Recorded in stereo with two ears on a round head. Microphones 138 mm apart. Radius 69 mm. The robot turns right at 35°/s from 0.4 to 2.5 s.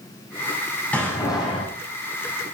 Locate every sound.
0.9 s a door slam: 10° left (ahead or behind), 6.5 m; by 1.7 s 35° left (ahead or behind), 6.5 m